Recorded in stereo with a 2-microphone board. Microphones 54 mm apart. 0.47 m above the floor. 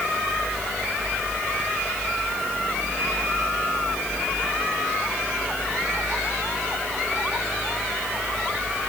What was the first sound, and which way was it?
Only background noise.